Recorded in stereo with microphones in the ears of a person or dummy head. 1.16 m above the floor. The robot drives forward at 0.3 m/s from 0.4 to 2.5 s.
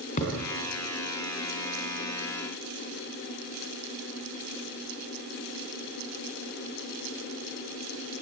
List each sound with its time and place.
0.2 s a thud: 40° left (ahead or behind), 4 m